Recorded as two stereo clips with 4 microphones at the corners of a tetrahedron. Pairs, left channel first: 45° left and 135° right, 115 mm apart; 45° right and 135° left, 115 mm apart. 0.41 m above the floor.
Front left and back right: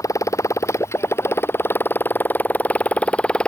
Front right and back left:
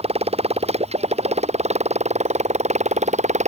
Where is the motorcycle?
105° left; by 3.5 s 125° left.